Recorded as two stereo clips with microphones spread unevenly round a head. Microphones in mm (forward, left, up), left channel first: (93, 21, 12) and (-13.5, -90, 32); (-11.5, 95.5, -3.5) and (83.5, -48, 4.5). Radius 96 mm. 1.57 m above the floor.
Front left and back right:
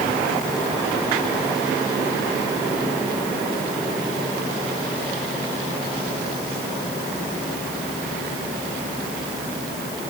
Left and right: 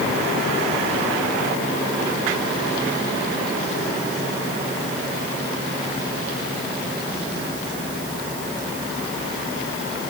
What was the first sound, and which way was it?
Only background noise.